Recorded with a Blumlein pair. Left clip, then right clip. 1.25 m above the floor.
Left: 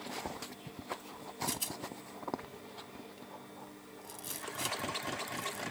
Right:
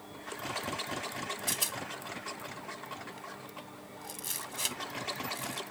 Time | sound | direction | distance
1.5 | a rattle | 15° right | ?